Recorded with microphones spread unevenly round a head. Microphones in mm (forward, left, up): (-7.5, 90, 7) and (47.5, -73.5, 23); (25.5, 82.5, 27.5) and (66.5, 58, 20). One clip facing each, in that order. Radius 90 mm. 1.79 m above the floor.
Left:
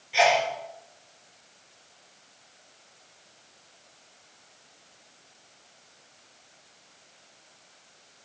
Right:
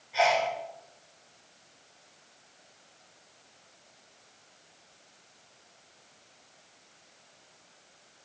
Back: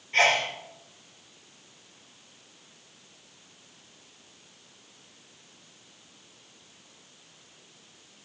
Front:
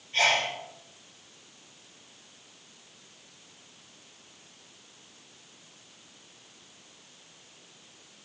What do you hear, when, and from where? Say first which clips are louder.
0.1 s a sneeze: left 3 dB, back 2 dB; 170° left, 6 m